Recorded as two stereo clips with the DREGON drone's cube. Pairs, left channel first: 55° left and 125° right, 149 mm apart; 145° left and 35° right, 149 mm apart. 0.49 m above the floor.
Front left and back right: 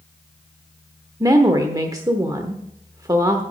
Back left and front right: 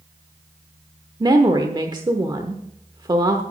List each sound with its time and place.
1.2 s a woman speaking: 75° right, 0.9 m